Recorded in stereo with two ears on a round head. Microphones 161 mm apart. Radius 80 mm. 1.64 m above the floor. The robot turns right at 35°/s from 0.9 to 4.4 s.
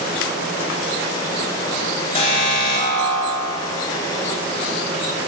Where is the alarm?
30° left, 4 m; by 3.8 s 85° left, 4 m.